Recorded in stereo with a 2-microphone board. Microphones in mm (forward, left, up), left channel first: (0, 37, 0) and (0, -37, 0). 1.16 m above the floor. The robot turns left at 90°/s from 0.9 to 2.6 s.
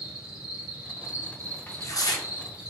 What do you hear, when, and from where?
0.0 s an insect: 15° right, 0.7 m; by 2.7 s 165° right, 0.7 m
1.7 s tearing paper: 155° left, 0.5 m; by 2.2 s 105° left, 0.5 m